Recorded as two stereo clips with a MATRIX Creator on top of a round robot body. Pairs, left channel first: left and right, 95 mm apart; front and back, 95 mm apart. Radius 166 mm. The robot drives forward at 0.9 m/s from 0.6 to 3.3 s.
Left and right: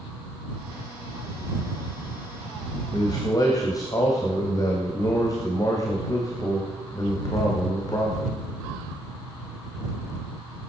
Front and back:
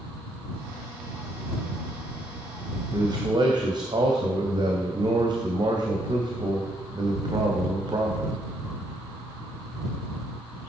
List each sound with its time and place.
2.9 s a man speaking: 135° left, 2.5 m; by 8.3 s 140° left, 3 m